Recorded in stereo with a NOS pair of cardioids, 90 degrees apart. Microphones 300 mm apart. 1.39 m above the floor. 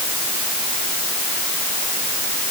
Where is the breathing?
No breathing in this recording.